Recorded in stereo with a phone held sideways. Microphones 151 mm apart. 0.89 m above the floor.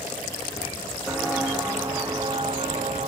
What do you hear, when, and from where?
1.1 s footsteps: 5° right (ahead or behind), 2.0 m; by 3.1 s 50° right (ahead or behind), 1.4 m